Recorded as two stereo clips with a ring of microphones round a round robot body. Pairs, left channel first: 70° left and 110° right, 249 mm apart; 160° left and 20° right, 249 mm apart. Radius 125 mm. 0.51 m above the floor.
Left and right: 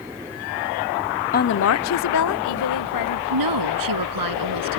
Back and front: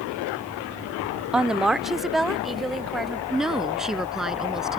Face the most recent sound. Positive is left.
turn(degrees=-110)